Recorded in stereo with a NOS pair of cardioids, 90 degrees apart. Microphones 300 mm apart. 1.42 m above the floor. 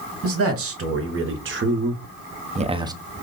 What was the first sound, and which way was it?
A man speaking, 50° right.